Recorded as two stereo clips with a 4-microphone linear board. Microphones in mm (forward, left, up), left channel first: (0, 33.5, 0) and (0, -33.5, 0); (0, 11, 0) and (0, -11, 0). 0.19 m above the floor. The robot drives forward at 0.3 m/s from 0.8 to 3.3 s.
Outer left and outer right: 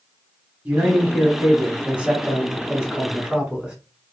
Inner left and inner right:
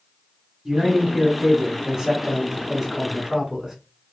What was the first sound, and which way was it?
A man speaking, 20° right (ahead or behind).